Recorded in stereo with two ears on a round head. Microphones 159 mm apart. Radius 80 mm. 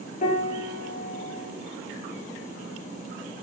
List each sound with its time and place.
0.2 s a piano: 45° left (ahead or behind), 0.6 m